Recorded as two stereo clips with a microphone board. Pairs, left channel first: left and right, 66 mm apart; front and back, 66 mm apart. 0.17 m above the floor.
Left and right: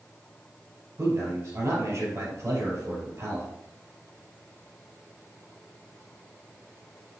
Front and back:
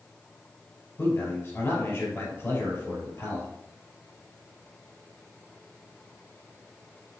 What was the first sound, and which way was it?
A man speaking, 50° right.